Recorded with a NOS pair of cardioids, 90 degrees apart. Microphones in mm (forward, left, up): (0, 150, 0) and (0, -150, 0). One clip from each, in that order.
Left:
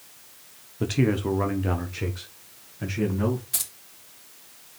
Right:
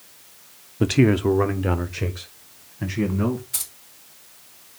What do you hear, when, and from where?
0.8 s a man speaking: 30° right, 0.7 m; by 3.4 s 20° right, 2.5 m
3.5 s keys jangling: 25° left, 3 m